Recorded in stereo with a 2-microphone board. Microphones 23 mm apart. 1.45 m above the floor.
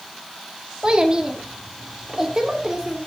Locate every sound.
0.8 s a child speaking: 35° right (ahead or behind), 2 m; by 3.0 s 25° right (ahead or behind), 3.5 m